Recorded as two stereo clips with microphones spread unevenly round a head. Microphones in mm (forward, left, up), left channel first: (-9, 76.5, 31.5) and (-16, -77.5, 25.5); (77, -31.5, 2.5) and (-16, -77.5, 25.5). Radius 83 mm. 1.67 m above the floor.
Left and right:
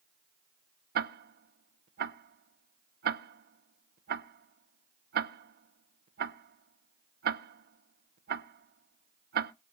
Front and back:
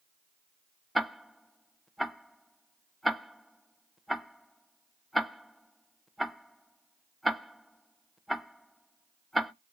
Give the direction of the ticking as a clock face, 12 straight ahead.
2 o'clock.